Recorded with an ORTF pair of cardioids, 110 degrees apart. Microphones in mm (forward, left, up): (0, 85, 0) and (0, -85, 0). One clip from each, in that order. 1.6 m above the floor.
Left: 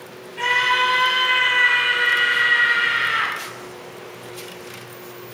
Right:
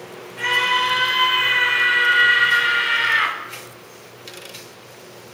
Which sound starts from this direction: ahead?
A scream, at 0.4 s.